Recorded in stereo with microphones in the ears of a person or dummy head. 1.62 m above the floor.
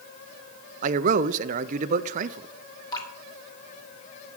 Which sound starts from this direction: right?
A man speaking, at 0.8 s.